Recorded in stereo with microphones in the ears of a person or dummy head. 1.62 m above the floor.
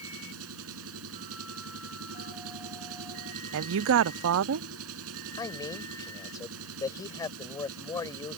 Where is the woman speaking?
70° right (ahead or behind).